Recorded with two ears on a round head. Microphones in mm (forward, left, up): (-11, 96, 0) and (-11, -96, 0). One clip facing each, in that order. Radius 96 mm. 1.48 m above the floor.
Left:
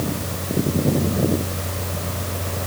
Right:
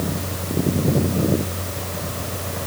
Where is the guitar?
No guitar in this recording.